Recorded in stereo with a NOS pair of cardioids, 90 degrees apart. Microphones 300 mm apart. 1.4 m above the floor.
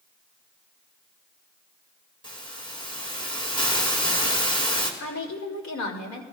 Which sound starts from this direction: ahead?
A hiss, at 2.2 s.